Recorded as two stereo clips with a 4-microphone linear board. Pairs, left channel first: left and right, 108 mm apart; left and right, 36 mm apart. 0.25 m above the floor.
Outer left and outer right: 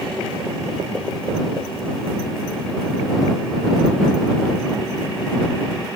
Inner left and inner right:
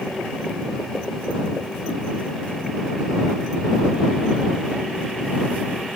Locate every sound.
Only background noise.